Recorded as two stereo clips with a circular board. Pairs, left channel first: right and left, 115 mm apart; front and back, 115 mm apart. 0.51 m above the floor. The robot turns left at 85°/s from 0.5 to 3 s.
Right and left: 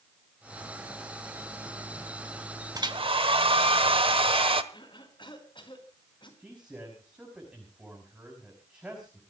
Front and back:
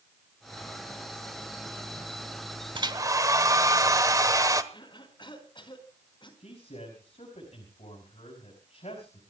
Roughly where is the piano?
No piano in this recording.